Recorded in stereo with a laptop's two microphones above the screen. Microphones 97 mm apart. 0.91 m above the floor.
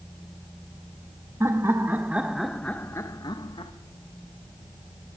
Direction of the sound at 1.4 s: 30° right (ahead or behind).